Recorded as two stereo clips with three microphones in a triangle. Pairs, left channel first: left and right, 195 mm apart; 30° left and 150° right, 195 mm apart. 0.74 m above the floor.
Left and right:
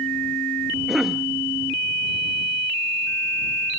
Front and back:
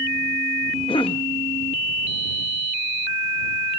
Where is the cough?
5° right.